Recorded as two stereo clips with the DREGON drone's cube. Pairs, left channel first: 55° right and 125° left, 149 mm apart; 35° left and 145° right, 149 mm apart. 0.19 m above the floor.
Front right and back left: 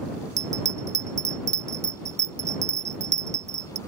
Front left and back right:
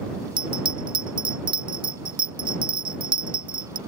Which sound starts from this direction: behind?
A bell, at 0.4 s.